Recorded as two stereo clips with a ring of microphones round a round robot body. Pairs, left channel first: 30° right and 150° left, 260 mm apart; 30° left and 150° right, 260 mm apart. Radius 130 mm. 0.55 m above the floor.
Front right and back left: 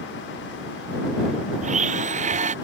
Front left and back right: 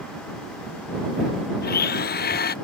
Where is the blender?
85° left.